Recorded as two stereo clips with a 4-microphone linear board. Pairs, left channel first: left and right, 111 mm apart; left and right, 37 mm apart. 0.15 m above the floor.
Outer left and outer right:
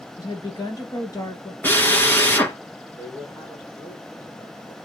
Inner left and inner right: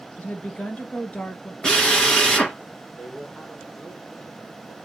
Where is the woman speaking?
35° left (ahead or behind), 2.5 m.